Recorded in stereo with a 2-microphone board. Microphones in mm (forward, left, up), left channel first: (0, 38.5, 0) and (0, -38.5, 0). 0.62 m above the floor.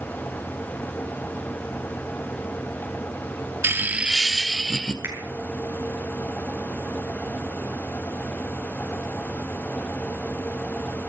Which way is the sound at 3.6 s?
35° right (ahead or behind).